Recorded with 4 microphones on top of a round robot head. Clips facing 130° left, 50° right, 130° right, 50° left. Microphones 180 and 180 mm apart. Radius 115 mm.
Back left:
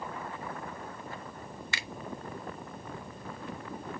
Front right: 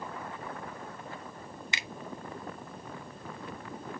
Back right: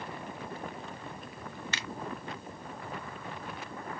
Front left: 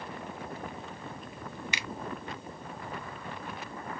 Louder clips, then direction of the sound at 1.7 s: Even, front left 1 dB; 10° right.